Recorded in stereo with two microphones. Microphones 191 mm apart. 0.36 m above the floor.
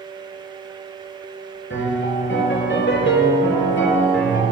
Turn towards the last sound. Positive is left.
turn(degrees=80)